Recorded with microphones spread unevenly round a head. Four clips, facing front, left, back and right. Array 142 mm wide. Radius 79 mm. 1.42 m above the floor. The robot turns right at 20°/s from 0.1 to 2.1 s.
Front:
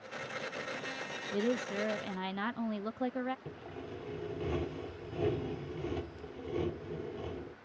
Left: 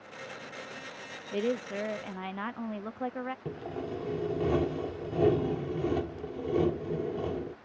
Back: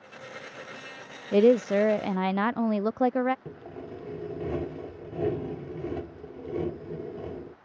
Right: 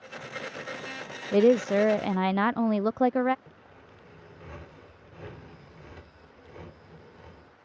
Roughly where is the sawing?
Left.